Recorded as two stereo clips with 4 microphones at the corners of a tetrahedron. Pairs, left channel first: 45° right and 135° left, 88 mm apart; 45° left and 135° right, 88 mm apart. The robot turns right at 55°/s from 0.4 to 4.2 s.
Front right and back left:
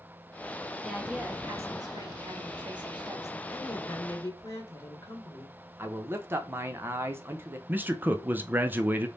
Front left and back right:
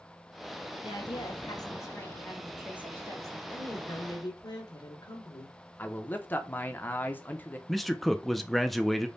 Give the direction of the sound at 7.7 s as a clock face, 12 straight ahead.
8 o'clock.